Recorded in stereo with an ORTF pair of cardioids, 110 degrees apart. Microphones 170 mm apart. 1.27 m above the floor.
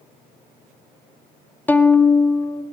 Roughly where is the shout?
I don't hear a shout.